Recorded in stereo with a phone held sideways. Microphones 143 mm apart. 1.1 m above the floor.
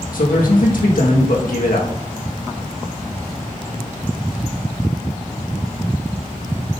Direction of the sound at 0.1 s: 75° left (ahead or behind).